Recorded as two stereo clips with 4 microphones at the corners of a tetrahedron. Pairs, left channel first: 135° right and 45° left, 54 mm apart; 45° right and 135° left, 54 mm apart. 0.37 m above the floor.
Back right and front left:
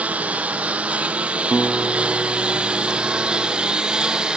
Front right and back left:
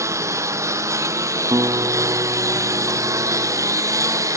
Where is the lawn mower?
110° left; by 4.4 s 120° left.